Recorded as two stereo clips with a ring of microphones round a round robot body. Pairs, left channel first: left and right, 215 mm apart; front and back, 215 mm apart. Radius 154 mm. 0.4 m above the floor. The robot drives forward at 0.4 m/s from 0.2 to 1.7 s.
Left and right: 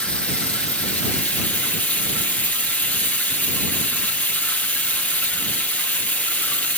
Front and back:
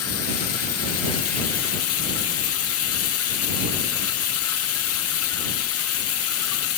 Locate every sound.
0.0 s running water: 5° left, 3 m